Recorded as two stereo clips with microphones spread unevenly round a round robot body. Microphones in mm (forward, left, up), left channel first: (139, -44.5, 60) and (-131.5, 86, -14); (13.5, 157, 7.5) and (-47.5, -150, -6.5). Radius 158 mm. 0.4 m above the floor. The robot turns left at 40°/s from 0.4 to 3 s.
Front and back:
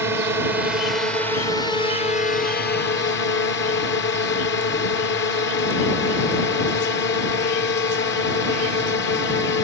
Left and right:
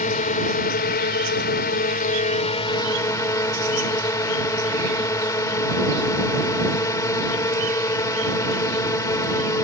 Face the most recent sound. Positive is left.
turn(degrees=10)